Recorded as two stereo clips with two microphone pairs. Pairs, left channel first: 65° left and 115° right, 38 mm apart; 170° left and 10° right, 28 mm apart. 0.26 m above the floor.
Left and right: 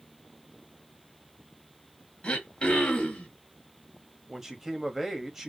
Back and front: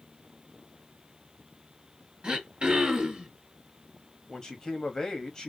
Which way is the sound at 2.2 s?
15° left.